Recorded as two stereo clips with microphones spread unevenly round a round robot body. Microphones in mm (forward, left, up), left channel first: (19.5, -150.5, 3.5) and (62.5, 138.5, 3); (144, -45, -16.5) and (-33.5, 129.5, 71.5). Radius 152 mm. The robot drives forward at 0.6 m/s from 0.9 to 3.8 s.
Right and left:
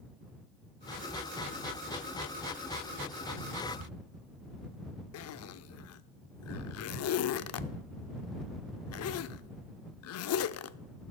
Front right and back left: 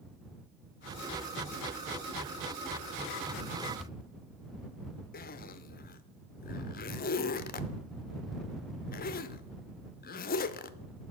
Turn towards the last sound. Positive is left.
turn(degrees=-70)